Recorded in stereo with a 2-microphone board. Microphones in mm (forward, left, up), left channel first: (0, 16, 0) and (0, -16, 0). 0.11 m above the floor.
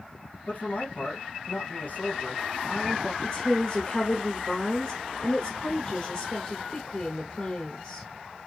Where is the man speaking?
55° left (ahead or behind), 2.5 m.